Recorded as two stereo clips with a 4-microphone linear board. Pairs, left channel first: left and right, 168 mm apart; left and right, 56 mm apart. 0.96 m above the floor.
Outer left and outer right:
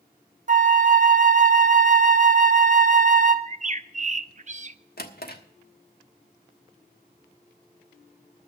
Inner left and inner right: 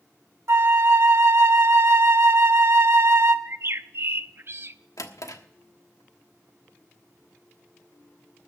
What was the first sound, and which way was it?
A flute, 50° right (ahead or behind).